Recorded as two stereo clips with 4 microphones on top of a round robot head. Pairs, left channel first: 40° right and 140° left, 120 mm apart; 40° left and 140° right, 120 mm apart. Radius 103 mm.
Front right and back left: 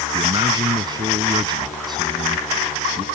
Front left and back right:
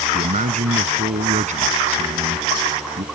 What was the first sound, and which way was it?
A man speaking, 165° right.